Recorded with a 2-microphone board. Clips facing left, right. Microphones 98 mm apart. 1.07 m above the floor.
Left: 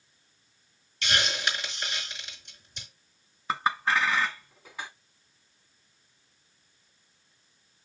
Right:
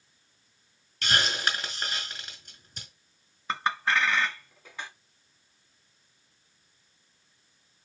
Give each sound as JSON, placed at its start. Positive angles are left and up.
{"t": 1.0, "sound": "a hiss", "side_deg": -45, "distance_m": 5.0}
{"t": 3.5, "sound": "a clink", "side_deg": 5, "distance_m": 1.4}